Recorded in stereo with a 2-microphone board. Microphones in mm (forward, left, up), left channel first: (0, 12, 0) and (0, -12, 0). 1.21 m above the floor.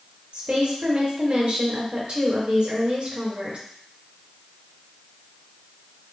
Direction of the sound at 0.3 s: 70° right (ahead or behind).